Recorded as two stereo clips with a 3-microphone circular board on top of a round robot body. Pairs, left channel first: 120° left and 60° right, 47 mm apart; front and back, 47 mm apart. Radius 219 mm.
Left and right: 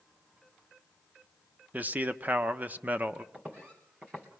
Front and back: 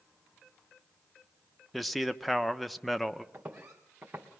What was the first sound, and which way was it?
A man speaking, 90° right.